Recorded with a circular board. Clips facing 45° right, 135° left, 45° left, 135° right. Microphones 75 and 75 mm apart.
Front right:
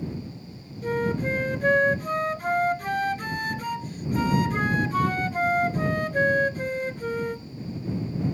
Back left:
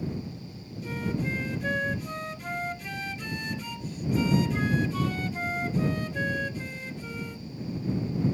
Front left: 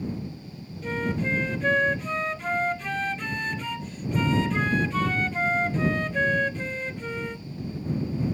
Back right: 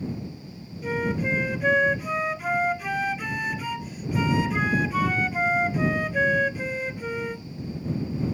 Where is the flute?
55° right.